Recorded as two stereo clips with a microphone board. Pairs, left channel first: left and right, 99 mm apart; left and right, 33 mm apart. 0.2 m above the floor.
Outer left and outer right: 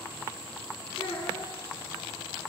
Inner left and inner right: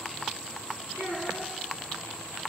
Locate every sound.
1.0 s a child speaking: 20° left (ahead or behind), 1.6 m